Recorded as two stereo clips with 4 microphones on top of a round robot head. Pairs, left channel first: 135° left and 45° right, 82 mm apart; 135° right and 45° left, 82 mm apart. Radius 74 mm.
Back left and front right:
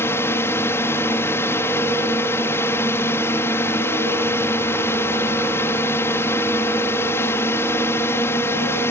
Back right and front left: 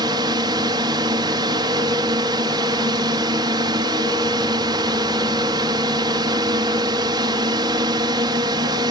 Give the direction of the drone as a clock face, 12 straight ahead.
9 o'clock.